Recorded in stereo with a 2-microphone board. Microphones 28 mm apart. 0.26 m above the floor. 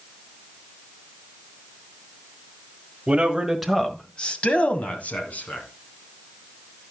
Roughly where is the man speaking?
Right.